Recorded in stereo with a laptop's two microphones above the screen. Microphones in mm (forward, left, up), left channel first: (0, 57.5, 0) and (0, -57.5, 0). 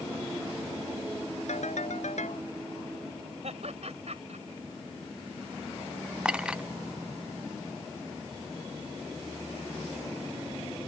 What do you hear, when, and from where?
1.5 s a ringtone: 85° left
3.4 s laughter: 65° right (ahead or behind)
6.2 s a clink: 10° right (ahead or behind)